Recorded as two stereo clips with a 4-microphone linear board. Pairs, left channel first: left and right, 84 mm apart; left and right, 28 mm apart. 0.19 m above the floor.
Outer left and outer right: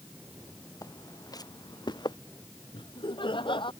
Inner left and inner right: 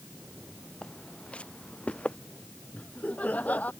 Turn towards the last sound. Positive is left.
turn(degrees=75)  # may be behind; listen again after turning